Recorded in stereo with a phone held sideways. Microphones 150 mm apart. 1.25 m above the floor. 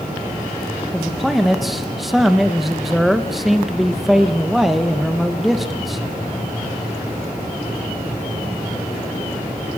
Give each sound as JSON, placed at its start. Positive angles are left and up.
{"t": 0.9, "sound": "a man speaking", "side_deg": 0, "distance_m": 0.9}